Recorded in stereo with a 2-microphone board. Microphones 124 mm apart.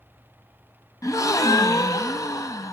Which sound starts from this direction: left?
A gasp, at 1.0 s.